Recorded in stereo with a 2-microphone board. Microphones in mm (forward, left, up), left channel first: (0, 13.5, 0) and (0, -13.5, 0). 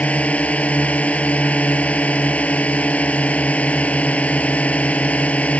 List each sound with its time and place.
0.0 s a drone: 60° left (ahead or behind)